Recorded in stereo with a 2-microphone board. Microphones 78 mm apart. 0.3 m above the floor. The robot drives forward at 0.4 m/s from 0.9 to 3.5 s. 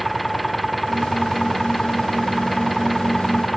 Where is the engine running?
Centre (ahead or behind).